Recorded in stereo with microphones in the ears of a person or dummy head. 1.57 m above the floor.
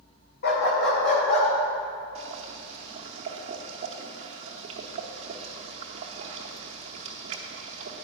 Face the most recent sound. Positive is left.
turn(degrees=-35)  # may be behind; listen again after turning